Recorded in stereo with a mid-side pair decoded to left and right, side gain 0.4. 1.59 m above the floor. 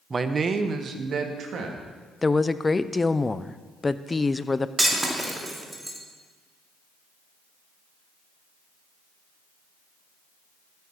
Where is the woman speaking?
25° left, 0.6 m.